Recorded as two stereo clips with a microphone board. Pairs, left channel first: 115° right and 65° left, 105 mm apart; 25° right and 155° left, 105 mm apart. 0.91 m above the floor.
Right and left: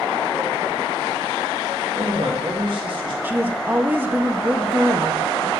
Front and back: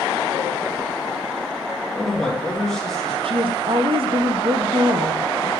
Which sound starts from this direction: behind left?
A woman speaking, at 3.2 s.